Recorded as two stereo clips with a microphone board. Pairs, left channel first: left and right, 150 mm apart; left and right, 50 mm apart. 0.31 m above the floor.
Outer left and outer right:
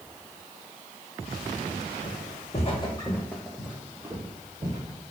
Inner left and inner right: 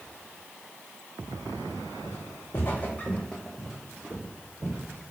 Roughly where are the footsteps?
Left.